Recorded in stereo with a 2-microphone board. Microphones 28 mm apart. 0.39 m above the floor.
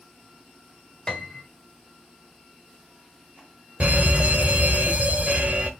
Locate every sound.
1.1 s a piano: 25° left (ahead or behind), 1.3 m
3.8 s an alarm: 50° right (ahead or behind), 1.0 m